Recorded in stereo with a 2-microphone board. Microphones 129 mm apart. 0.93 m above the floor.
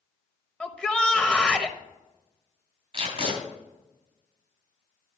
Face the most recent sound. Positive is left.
turn(degrees=-45)  # may be behind; listen again after turning